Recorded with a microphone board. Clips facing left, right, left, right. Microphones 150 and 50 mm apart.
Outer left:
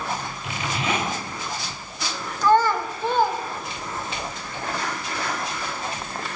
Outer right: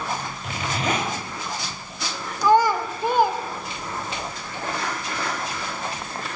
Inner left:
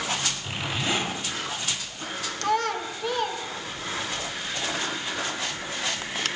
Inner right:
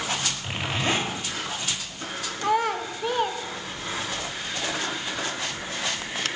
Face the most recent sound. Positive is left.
turn(degrees=-10)  # may be behind; listen again after turning